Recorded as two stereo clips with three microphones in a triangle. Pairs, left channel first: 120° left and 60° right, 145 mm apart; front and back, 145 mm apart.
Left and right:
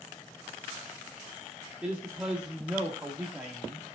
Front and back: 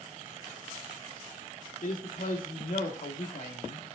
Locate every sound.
1.8 s a man speaking: 25° left, 1.2 m